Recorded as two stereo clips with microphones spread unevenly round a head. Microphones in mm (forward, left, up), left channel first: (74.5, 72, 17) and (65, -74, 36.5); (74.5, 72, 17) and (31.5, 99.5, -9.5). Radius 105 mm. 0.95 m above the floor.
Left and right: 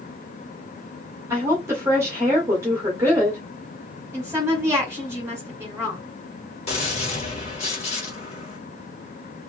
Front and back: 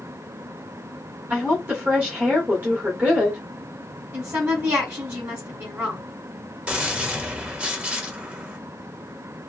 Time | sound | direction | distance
1.3 | a woman speaking | 170° right | 1.5 m
4.1 | a woman speaking | 170° right | 1.9 m
6.7 | a gunshot | 115° left | 1.4 m